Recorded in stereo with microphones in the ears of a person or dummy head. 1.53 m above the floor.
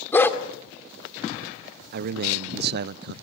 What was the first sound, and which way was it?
A dog barking, 10° left (ahead or behind).